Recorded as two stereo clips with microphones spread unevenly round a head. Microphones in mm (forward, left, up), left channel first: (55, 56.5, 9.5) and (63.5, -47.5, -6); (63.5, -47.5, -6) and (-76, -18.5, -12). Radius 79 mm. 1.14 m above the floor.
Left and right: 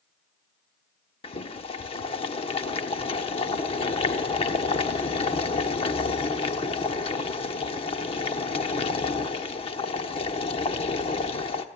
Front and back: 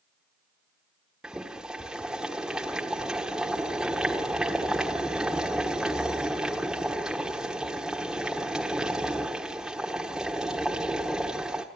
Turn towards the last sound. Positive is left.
turn(degrees=80)